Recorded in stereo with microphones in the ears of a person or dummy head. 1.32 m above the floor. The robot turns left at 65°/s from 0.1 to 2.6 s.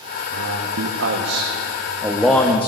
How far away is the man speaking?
About 1.1 m.